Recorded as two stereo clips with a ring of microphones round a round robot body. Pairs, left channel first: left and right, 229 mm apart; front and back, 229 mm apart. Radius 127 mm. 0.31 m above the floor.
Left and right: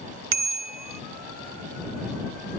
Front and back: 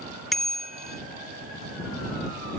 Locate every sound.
0.3 s a bicycle bell: 90° right